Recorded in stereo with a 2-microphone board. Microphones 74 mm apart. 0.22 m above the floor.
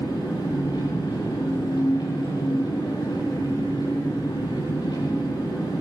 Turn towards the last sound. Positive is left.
turn(degrees=75)  # may be behind; listen again after turning